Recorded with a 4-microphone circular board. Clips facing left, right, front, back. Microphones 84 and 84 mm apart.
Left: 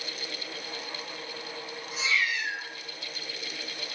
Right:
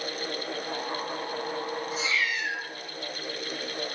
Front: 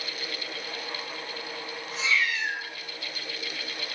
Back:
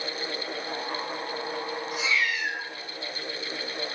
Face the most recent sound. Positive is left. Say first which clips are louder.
# left 3 dB, front 1 dB
turn(degrees=-115)